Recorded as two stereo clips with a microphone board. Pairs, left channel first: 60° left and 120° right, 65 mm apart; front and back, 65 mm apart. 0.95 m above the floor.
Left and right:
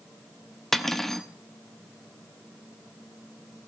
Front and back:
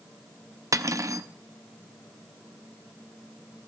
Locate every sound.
0.7 s cutlery clinking: 145° left, 0.6 m